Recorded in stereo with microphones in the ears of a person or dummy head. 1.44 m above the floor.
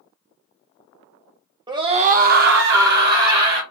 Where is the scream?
20° right (ahead or behind), 0.5 m; by 3.6 s 50° right (ahead or behind), 1.0 m.